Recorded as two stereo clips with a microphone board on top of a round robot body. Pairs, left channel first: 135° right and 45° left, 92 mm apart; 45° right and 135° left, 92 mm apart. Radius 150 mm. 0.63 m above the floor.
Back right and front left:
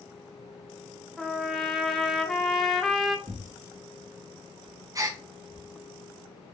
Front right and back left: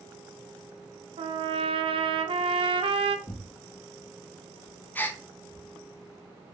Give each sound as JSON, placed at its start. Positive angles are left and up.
{"t": 1.2, "sound": "a trumpet", "azimuth_deg": 135, "distance_m": 0.5}
{"t": 3.3, "sound": "tearing paper", "azimuth_deg": 10, "distance_m": 0.8}
{"t": 5.0, "sound": "a gasp", "azimuth_deg": 15, "distance_m": 0.7}